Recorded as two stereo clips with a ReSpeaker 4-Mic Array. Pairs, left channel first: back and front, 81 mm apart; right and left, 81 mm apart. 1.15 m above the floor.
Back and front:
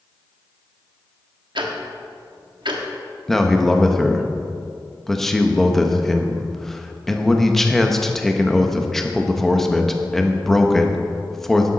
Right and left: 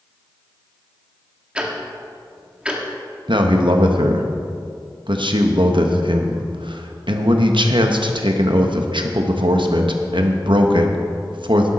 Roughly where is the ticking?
Ahead.